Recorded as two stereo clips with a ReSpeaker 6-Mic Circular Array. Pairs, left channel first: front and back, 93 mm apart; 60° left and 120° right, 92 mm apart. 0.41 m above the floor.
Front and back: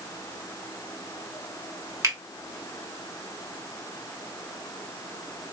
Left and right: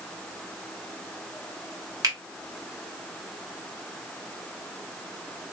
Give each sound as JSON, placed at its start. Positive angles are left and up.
{"t": 2.0, "sound": "a finger snap", "azimuth_deg": -145, "distance_m": 1.4}